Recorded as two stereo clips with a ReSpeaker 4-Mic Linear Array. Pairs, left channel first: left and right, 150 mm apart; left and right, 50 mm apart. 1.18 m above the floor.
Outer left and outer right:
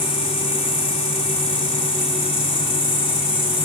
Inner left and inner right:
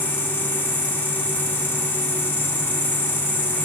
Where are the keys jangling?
No keys jangling in this recording.